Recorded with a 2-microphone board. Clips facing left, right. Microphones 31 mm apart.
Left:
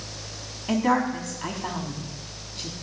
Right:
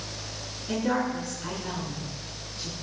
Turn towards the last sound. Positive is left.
turn(degrees=70)  # may be behind; listen again after turning